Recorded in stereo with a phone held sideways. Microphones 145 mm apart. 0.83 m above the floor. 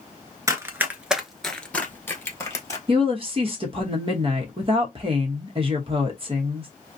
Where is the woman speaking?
40° right (ahead or behind), 0.9 m.